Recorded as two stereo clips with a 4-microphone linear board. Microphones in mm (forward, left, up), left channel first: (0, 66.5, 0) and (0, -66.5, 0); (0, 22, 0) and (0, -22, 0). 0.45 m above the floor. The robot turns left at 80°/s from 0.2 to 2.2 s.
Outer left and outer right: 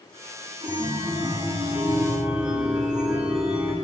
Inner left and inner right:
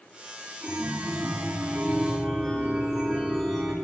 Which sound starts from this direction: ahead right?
A chime, at 0.6 s.